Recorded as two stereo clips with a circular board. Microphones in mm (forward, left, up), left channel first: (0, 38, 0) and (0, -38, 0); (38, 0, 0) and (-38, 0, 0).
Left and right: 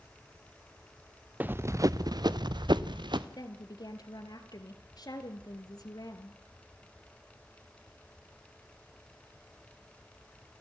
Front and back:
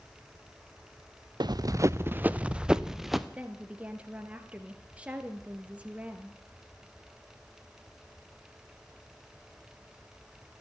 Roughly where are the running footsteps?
Behind.